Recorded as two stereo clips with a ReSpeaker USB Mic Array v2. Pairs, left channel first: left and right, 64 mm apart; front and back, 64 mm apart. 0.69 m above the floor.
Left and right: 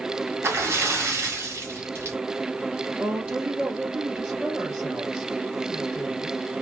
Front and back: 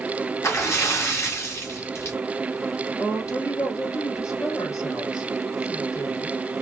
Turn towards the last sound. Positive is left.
turn(degrees=-25)